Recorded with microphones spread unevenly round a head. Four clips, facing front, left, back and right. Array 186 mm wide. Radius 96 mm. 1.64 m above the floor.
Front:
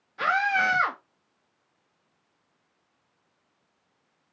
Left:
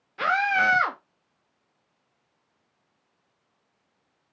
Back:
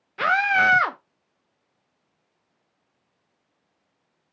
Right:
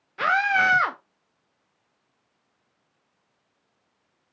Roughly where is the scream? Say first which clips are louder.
Right 1 dB, back 4 dB; behind.